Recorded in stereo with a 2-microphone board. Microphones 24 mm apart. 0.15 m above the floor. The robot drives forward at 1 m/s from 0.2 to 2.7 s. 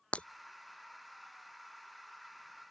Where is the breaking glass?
70° left (ahead or behind); by 0.3 s 75° left (ahead or behind).